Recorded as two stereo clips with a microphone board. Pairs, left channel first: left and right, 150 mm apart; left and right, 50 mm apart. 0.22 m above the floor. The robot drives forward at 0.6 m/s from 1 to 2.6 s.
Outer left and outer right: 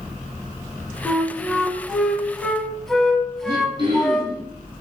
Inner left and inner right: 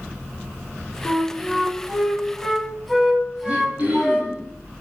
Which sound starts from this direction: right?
Throat clearing, at 3.5 s.